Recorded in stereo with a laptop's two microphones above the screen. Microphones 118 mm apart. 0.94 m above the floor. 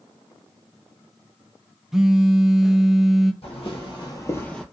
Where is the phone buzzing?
5° right (ahead or behind), 0.5 m.